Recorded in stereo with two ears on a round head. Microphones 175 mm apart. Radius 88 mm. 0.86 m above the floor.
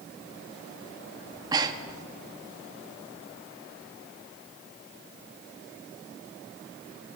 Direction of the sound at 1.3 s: 20° right (ahead or behind).